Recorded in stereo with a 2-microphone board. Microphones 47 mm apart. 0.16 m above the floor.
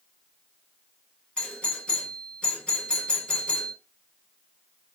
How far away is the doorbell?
About 1.6 m.